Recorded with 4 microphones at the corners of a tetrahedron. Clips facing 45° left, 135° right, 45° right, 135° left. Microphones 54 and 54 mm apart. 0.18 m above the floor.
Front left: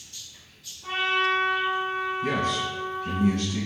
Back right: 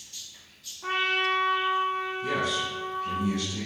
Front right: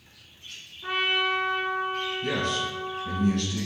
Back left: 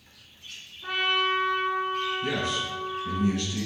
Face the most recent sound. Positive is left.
turn(degrees=60)